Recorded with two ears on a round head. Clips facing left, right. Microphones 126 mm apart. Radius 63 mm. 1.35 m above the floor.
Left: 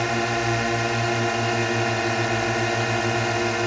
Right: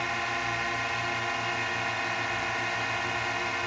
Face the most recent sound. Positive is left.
turn(degrees=60)  # may be behind; listen again after turning